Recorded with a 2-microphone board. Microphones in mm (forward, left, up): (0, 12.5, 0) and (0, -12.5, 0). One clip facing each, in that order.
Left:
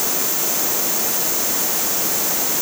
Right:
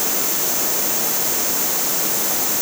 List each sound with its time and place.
Only background noise.